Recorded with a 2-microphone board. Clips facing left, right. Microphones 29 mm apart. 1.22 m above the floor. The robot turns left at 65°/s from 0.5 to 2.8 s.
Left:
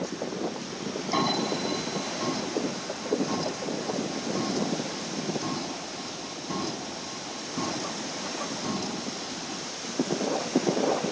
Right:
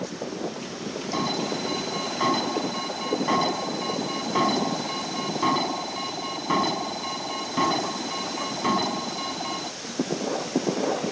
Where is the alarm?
20° left; by 9.7 s 90° right.